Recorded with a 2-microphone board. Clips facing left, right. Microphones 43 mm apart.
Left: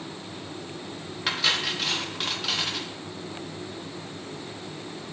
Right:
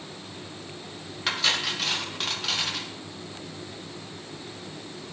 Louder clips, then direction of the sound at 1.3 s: Even; centre (ahead or behind).